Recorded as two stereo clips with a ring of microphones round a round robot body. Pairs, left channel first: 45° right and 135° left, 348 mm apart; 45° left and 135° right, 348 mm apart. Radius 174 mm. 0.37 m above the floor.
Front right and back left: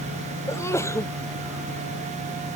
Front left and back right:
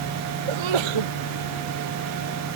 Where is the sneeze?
130° right.